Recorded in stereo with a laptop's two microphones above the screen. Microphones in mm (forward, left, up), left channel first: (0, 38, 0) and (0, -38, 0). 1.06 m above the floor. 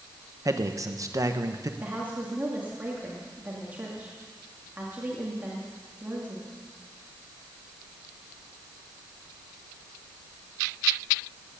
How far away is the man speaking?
About 1.1 m.